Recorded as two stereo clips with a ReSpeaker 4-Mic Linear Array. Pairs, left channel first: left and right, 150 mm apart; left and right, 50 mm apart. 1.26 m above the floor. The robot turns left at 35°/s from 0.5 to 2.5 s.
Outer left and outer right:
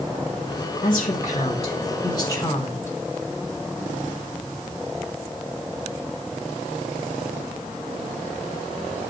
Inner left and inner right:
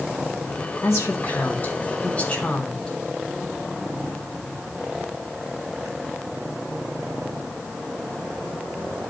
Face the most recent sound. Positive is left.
turn(degrees=15)